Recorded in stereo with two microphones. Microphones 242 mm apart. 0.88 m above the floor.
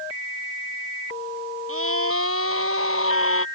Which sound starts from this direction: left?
A scream, at 1.7 s.